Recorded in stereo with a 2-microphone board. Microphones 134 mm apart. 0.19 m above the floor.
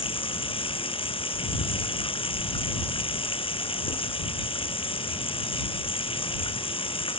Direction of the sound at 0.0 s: 40° left (ahead or behind).